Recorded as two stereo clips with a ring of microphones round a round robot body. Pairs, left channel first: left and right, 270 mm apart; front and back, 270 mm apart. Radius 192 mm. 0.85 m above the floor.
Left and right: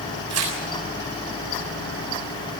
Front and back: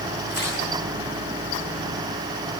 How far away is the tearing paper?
About 7 m.